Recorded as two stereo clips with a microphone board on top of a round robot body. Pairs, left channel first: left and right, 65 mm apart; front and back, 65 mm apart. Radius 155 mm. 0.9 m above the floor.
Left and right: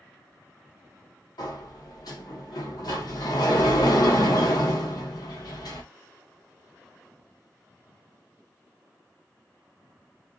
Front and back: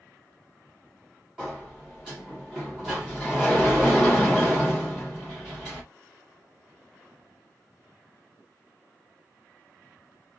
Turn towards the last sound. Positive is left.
turn(degrees=100)